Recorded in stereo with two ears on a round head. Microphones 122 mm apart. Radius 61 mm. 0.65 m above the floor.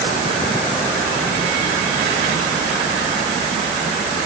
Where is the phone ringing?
No phone ringing in this recording.